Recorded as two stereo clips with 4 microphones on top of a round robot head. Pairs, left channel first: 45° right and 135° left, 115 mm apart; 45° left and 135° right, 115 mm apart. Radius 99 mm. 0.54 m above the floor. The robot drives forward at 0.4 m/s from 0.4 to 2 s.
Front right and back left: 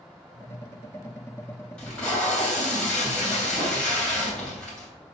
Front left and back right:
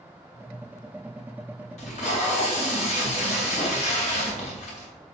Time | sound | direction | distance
1.8 | tape being pulled | 35° left | 3 m